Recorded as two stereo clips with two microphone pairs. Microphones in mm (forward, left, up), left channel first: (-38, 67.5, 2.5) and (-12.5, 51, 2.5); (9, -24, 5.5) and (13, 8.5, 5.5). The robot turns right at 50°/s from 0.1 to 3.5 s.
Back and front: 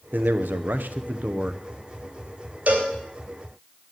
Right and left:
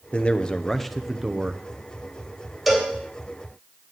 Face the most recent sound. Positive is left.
turn(degrees=40)